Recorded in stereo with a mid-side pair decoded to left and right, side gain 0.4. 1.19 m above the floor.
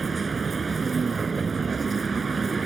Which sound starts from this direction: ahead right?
A vehicle, at 0.0 s.